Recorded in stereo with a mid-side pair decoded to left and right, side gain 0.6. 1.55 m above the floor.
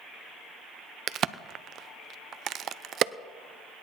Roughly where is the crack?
Ahead right.